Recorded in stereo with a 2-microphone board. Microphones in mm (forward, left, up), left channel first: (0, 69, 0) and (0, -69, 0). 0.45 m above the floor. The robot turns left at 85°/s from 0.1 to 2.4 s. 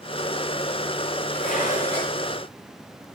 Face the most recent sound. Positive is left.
turn(degrees=0)